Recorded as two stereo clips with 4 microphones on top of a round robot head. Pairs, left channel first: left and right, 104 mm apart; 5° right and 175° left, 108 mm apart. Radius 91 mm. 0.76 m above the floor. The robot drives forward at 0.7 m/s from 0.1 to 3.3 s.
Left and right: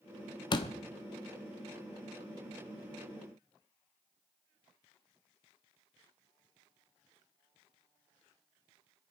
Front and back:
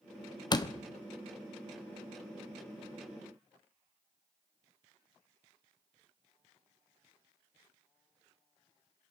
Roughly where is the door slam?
Ahead left.